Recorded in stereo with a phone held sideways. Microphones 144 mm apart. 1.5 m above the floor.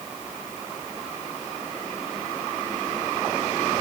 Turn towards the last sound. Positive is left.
No sound to turn to.